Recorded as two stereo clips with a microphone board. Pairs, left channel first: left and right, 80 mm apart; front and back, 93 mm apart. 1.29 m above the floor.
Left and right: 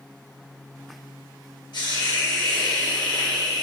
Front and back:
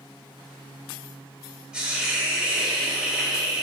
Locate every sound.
1.7 s a hiss: 100° left, 2.5 m